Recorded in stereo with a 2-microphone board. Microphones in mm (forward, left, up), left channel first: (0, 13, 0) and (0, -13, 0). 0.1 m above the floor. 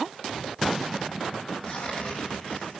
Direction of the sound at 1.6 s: 50° left (ahead or behind).